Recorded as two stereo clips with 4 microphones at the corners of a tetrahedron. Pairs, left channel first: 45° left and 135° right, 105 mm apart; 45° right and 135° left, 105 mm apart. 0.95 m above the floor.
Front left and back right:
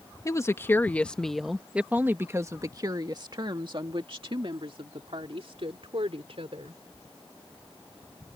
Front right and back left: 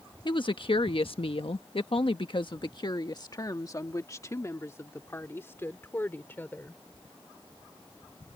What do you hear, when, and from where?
0.2 s a woman speaking: 10° right; by 6.8 s 115° right